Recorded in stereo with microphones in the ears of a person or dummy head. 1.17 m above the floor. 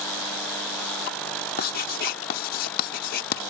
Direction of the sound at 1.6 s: 60° left (ahead or behind).